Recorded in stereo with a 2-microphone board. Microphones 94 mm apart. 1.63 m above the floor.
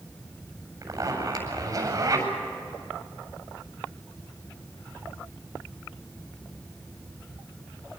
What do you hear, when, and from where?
0.8 s a zipper: 35° right (ahead or behind), 8 m